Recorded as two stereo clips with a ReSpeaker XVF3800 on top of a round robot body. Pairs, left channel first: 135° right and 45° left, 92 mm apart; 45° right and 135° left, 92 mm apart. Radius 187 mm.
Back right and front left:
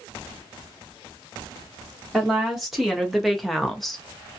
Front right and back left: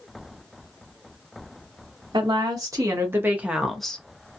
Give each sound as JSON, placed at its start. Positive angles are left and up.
{"t": 2.1, "sound": "a woman speaking", "azimuth_deg": 130, "distance_m": 1.3}